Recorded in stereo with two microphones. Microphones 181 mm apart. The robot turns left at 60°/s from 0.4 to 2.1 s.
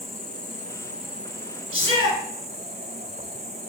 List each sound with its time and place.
0.0 s an insect: 40° left, 0.8 m; by 3.7 s 60° right, 0.8 m
1.7 s a shout: 30° right (ahead or behind), 1.7 m; by 2.2 s 25° right (ahead or behind), 1.7 m